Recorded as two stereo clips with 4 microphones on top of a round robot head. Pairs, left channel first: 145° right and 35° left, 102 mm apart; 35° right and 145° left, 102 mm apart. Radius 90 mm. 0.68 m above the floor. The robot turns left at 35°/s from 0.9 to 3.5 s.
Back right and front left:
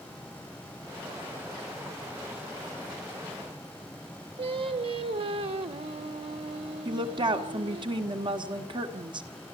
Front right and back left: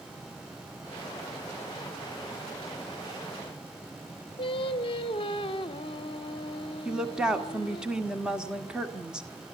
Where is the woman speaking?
65° left, 1.9 m.